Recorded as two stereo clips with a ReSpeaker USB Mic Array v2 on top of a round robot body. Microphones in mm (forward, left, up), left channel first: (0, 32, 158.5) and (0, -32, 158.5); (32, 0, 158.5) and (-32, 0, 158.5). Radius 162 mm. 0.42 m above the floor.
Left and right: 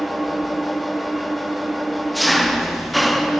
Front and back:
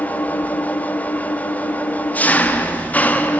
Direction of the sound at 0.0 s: Straight ahead.